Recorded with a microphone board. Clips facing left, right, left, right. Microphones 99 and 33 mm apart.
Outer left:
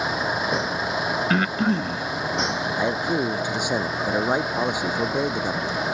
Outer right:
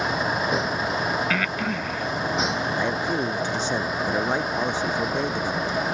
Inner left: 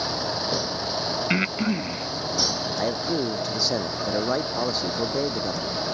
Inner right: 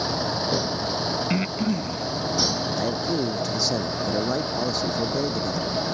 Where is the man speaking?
15° left (ahead or behind).